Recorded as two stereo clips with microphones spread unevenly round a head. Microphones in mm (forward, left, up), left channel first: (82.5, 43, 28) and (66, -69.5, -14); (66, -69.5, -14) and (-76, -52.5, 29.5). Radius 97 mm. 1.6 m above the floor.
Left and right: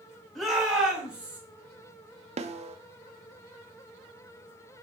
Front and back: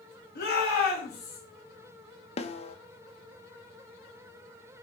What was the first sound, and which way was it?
A shout, 10° right.